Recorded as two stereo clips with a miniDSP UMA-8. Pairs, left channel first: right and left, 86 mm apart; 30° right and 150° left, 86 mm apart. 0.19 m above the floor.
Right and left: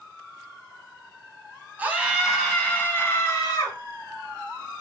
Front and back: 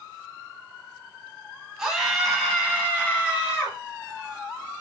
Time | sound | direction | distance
1.8 | a scream | 80° left | 1.1 m